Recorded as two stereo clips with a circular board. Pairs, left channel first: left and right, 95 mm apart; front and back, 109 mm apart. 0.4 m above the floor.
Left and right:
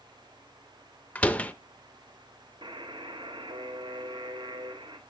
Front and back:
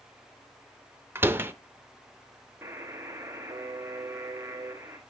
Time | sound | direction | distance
1.1 | a door slam | 145° left | 0.5 m
2.6 | a buzzer | 115° right | 1.2 m